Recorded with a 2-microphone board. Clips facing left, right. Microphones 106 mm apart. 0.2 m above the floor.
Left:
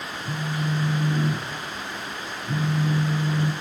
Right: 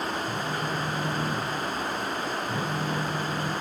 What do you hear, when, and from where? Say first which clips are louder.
0.2 s a phone buzzing: left 1 dB; 80° left, 0.6 m